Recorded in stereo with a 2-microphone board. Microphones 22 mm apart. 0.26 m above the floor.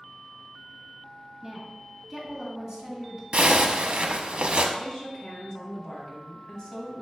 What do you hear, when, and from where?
1.4 s a woman speaking: 15° right (ahead or behind), 1.9 m; by 3.2 s 30° right (ahead or behind), 1.6 m
3.3 s a zipper: 60° right (ahead or behind), 0.5 m
4.8 s a woman speaking: 30° left (ahead or behind), 1.7 m